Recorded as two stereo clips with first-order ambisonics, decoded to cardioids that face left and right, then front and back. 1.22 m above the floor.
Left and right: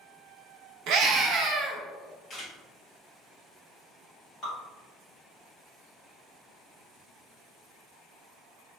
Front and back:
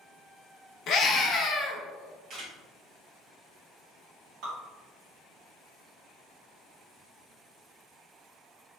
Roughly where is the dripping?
Behind left.